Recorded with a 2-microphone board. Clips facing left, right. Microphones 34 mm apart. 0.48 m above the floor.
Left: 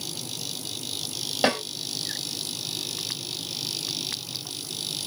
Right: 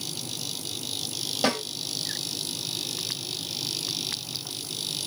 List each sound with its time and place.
1.4 s a snare drum: 30° left (ahead or behind), 1.7 m